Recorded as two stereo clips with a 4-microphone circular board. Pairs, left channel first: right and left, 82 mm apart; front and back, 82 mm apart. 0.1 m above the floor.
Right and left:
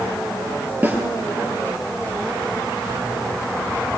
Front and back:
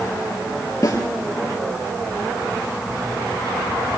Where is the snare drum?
30° left, 2.5 m.